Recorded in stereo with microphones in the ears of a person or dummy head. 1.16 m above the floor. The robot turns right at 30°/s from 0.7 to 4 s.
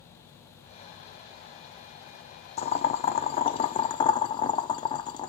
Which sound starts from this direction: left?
Boiling, at 2.6 s.